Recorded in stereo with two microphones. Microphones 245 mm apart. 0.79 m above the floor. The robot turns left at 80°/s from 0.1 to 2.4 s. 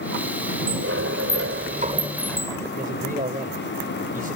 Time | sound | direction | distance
0.7 | a sliding door | 50° right | ?
2.8 | a man speaking | 35° right (ahead or behind) | ?